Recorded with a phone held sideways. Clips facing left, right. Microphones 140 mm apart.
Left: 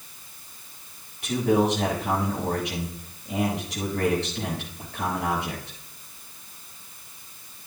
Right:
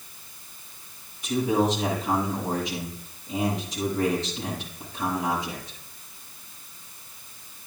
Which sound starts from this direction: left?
A man speaking, at 1.2 s.